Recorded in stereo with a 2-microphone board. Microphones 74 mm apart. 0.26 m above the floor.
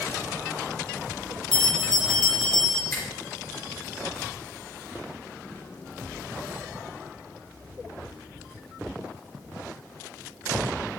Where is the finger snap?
35° left (ahead or behind), 3 m.